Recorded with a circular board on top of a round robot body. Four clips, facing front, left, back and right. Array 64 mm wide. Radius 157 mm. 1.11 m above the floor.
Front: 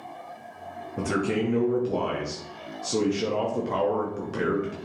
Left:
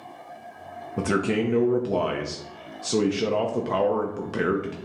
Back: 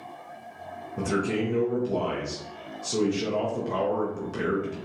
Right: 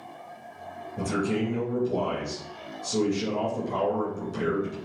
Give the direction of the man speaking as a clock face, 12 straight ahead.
9 o'clock.